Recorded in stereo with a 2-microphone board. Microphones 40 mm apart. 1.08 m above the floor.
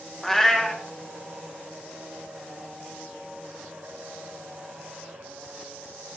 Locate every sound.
0.2 s a cat meowing: 5° left (ahead or behind), 0.6 m